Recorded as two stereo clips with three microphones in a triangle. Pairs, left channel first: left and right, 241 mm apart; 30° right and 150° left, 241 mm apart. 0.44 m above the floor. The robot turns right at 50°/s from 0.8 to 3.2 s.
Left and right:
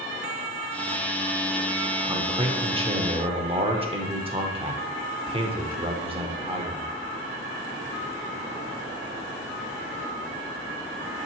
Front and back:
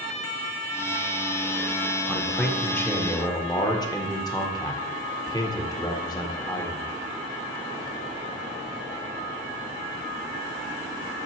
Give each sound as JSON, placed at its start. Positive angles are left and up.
{"t": 2.1, "sound": "a man speaking", "azimuth_deg": -135, "distance_m": 0.8}